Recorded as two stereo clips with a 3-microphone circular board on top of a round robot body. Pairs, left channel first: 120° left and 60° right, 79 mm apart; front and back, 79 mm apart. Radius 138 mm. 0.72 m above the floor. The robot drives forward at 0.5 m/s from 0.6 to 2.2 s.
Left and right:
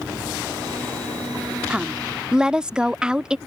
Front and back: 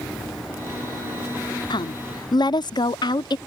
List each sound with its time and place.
1.7 s a woman speaking: 15° left; by 3.4 s 20° left